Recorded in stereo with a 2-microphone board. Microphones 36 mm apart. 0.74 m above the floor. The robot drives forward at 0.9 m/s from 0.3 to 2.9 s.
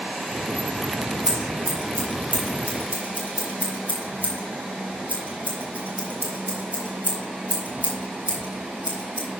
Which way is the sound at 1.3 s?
35° right (ahead or behind).